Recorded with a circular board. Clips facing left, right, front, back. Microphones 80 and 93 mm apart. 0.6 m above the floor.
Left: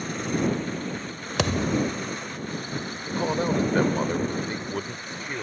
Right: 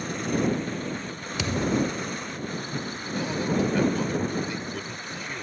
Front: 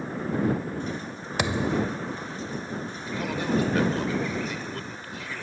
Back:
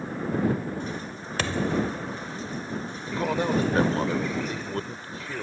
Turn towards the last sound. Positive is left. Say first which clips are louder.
# left 3 dB, back 2 dB
turn(degrees=130)